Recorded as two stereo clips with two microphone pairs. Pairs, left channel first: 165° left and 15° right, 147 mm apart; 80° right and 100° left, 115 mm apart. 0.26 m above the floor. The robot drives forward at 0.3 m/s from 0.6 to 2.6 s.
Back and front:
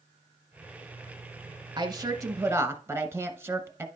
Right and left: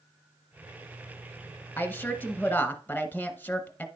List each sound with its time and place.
1.8 s a woman speaking: 30° right, 1.0 m; by 3.9 s 50° right, 0.9 m